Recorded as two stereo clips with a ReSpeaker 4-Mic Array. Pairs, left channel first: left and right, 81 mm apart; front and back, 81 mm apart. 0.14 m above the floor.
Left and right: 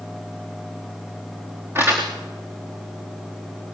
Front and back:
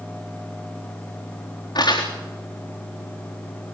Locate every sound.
1.8 s crumpling: 30° right, 4 m